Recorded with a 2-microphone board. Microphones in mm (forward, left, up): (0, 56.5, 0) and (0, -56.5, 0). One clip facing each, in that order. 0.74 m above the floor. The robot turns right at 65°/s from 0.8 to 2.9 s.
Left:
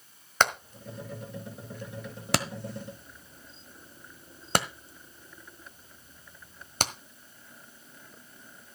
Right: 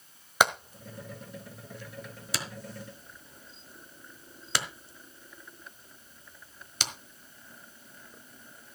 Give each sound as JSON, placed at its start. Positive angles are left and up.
{"t": 0.4, "sound": "hammering", "side_deg": -10, "distance_m": 1.3}